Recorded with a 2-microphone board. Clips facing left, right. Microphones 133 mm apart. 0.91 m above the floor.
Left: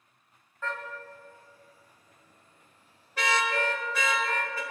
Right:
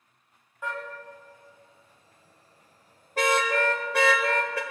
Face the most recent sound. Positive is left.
turn(degrees=-75)  # may be behind; listen again after turning